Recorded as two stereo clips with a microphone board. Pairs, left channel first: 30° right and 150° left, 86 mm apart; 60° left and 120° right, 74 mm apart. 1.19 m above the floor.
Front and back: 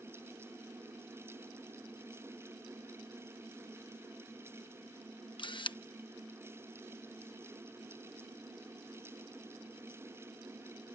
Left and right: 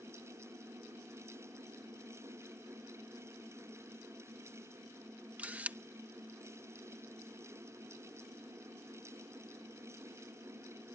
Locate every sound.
5.4 s a camera shutter: 50° right